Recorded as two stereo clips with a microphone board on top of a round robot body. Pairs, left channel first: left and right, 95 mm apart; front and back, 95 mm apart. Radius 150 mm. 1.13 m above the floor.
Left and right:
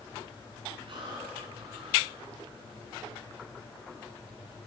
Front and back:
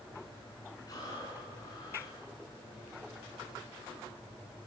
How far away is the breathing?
About 9.5 m.